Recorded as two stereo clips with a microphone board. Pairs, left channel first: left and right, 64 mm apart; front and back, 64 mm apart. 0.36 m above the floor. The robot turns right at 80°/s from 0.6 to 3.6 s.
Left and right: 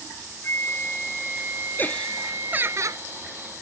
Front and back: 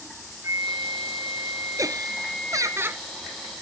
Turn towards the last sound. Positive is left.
turn(degrees=-70)